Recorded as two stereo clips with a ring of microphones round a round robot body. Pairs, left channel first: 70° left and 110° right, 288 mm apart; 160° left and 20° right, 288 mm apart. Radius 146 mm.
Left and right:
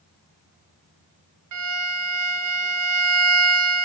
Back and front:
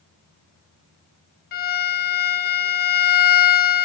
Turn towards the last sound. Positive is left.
turn(degrees=-145)